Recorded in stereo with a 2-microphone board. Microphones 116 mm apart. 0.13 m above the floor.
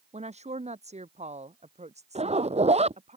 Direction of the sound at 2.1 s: 65° right (ahead or behind).